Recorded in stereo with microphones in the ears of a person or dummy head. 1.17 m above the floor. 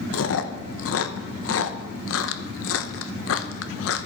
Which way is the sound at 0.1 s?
70° left (ahead or behind).